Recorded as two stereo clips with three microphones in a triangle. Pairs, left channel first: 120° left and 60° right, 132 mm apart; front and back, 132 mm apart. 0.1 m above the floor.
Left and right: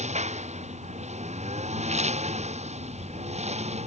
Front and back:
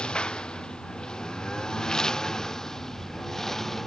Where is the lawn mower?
85° right; by 3.9 s 90° right.